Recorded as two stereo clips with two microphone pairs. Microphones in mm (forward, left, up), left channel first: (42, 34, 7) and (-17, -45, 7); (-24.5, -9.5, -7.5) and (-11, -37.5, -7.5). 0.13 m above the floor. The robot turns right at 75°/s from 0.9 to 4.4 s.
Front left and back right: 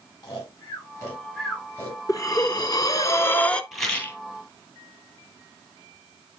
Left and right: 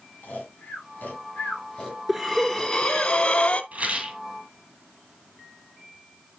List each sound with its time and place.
0.2 s snoring: 100° left, 7 m; by 3.1 s 95° right, 7 m
2.1 s breathing: 15° left, 1.0 m; by 3.6 s 130° left, 1.0 m
3.7 s a rattle: 40° right, 3 m; by 4.2 s 10° right, 3 m